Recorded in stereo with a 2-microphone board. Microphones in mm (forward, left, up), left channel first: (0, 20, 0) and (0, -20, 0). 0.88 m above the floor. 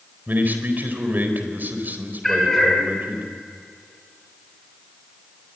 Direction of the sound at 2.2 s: 10° left (ahead or behind).